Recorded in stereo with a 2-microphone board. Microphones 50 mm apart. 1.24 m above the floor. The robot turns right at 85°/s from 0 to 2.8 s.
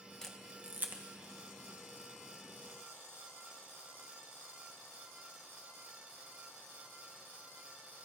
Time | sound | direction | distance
0.2 | a camera shutter | 10° left (ahead or behind) | 1.5 m